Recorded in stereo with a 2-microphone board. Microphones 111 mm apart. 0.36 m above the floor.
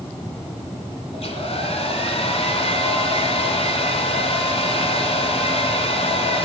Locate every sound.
1.1 s a hair dryer: 65° left (ahead or behind), 2.5 m